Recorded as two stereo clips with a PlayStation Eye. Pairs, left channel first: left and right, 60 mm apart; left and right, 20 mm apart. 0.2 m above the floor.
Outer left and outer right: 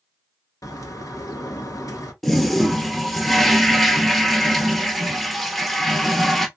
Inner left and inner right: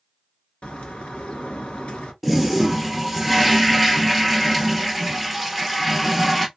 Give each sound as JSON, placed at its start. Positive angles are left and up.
{"t": 0.6, "sound": "a bird", "side_deg": 70, "distance_m": 1.2}
{"t": 2.2, "sound": "a toilet flushing", "side_deg": 5, "distance_m": 0.9}